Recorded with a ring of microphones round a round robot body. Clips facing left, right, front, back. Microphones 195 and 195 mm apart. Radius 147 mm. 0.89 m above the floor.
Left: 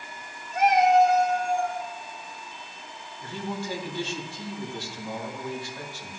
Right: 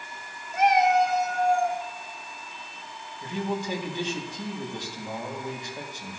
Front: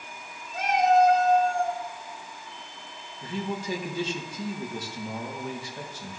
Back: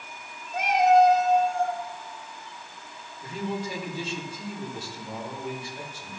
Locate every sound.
0.5 s a cat meowing: 125° right, 0.9 m; by 1.8 s 85° right, 1.5 m
3.2 s a man speaking: 20° right, 2 m